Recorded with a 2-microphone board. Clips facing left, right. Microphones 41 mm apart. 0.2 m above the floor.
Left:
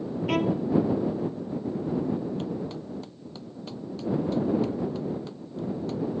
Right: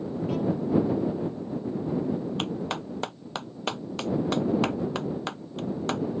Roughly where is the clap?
Right.